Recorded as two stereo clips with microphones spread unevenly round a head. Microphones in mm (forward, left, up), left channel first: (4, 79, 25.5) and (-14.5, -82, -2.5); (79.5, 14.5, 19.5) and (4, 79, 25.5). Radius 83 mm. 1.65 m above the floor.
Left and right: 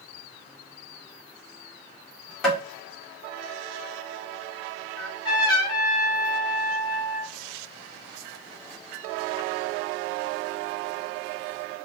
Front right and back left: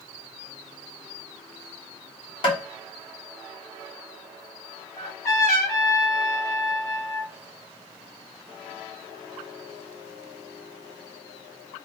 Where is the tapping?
Straight ahead, 1.3 m.